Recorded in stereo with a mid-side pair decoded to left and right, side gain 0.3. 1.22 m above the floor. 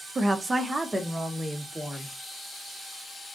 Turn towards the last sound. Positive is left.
turn(degrees=-15)